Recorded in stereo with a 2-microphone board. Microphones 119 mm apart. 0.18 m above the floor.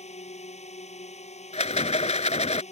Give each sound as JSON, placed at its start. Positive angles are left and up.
{"t": 0.0, "sound": "a drone", "side_deg": 70}
{"t": 1.5, "sound": "a rattle", "side_deg": 70}